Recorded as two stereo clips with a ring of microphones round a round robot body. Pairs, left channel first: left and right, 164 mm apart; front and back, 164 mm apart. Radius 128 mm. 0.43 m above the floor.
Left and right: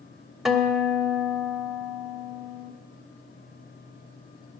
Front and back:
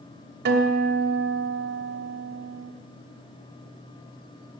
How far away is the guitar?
About 1.2 m.